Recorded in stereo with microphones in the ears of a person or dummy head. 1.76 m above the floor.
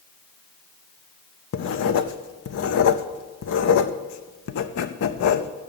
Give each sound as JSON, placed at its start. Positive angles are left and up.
{"t": 1.5, "sound": "writing", "side_deg": 55, "distance_m": 0.7}